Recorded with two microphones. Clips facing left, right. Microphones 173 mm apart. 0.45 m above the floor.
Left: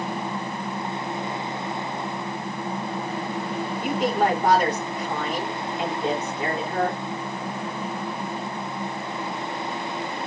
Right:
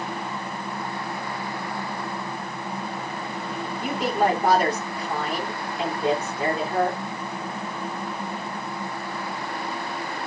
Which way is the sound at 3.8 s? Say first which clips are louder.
Even; 10° right (ahead or behind).